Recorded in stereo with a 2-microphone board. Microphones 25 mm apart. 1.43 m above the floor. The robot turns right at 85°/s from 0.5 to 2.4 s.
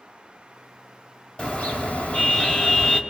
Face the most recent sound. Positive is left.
turn(degrees=145)